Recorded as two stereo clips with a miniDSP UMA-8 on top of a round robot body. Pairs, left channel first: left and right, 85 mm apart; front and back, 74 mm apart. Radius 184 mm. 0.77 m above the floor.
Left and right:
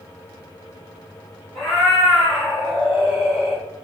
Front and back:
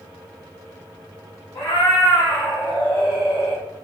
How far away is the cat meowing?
About 1.4 m.